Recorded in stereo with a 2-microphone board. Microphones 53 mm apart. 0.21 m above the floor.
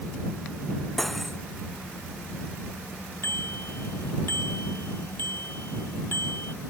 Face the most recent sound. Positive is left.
turn(degrees=50)  # may be behind; listen again after turning